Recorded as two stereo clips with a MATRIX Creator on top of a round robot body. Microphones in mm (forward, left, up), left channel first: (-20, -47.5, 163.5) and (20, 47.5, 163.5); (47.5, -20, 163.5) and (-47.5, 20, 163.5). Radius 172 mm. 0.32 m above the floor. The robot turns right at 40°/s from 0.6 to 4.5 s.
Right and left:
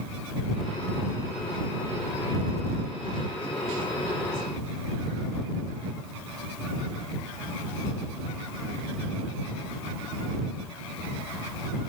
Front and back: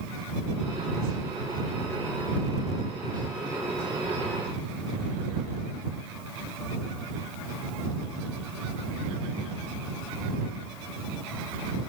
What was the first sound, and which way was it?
Only background noise.